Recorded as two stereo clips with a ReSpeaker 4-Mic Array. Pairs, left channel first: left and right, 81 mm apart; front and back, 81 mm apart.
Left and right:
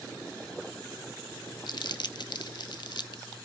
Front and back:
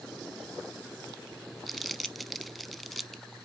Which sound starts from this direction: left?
Crumpling, at 1.7 s.